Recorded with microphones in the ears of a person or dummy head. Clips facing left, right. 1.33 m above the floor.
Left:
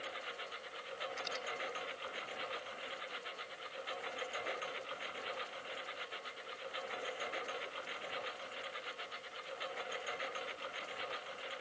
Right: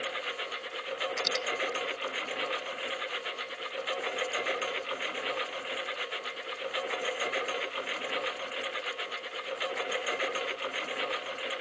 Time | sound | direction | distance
0.0 | a lawn mower | 70° right (ahead or behind) | ?
1.2 | a dropped coin | 70° right (ahead or behind) | ?